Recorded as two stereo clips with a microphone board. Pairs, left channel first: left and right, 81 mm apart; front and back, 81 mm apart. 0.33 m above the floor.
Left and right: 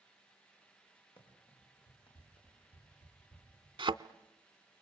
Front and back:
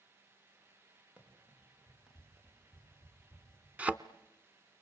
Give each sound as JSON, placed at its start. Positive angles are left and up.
{"t": 1.2, "sound": "running footsteps", "azimuth_deg": 100, "distance_m": 5.5}
{"t": 3.8, "sound": "a thud", "azimuth_deg": -105, "distance_m": 0.6}